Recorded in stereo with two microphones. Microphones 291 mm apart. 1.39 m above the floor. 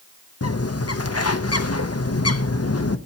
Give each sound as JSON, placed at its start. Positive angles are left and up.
{"t": 0.4, "sound": "a bird", "side_deg": 60, "distance_m": 0.7}